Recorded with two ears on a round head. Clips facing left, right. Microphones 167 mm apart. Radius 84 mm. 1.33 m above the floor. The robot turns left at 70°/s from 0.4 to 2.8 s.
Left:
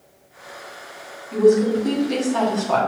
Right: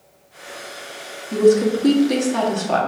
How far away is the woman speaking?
About 1.1 m.